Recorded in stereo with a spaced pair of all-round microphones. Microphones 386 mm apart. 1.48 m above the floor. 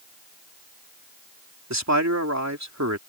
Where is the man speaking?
45° right (ahead or behind).